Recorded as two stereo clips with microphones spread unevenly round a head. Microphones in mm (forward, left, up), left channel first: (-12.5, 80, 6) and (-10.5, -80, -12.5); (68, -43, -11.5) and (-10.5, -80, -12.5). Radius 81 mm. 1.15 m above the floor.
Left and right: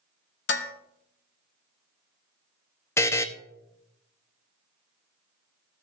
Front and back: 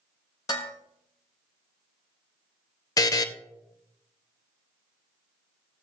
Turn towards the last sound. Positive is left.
turn(degrees=35)